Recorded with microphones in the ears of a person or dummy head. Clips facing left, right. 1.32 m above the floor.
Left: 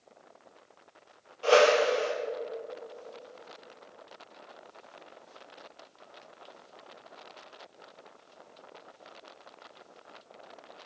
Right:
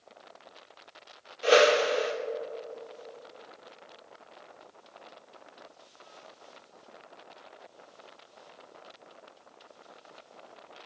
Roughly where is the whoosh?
Centre.